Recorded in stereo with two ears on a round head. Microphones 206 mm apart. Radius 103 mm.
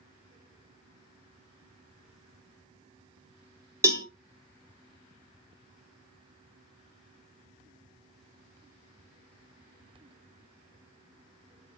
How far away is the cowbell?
About 0.8 m.